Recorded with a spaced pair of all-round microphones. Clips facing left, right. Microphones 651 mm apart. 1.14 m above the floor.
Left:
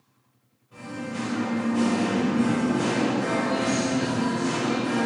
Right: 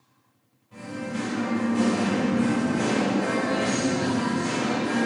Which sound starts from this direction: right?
Singing, at 0.7 s.